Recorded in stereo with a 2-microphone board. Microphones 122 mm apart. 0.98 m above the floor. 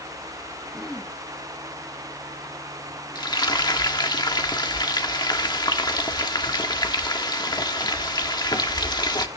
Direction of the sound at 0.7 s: 5° left (ahead or behind).